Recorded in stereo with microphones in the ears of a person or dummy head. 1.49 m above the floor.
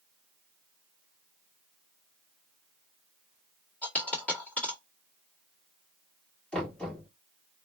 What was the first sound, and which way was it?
A dropped coin, 5° left (ahead or behind).